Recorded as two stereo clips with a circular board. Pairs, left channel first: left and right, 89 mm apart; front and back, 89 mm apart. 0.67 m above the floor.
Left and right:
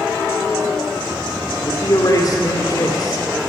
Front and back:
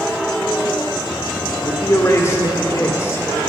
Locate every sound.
1.6 s a man speaking: 55° left, 1.8 m